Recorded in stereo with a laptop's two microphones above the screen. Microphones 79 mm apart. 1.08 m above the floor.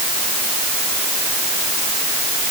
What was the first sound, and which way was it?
Only background noise.